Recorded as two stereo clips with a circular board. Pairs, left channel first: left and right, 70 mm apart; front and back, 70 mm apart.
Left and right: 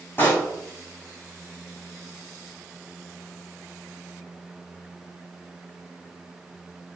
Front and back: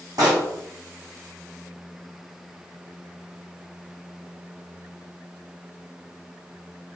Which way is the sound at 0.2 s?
150° left.